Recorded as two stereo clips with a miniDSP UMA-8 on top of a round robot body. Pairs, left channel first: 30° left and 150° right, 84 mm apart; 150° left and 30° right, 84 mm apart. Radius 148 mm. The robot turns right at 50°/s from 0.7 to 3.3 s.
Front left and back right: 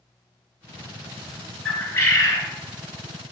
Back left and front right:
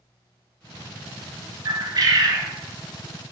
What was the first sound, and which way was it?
A bird, 35° right.